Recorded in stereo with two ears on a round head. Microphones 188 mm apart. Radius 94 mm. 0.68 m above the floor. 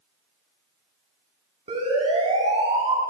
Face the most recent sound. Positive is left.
turn(degrees=-25)  # may be behind; listen again after turning